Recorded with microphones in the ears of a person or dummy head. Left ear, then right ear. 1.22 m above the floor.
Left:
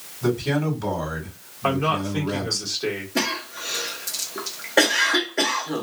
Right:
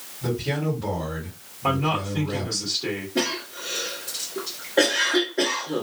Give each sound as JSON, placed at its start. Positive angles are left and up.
{"t": 0.2, "sound": "a man speaking", "side_deg": 65, "distance_m": 1.8}
{"t": 1.6, "sound": "a man speaking", "side_deg": 60, "distance_m": 1.5}
{"t": 3.1, "sound": "a cough", "side_deg": 65, "distance_m": 1.2}